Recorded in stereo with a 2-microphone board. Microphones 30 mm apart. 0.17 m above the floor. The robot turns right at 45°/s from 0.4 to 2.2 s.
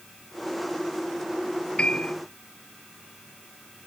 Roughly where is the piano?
Left.